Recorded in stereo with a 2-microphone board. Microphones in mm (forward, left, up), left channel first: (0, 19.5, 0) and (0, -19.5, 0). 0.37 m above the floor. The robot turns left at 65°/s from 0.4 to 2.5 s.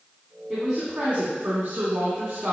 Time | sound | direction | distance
0.5 | a woman speaking | straight ahead | 3 m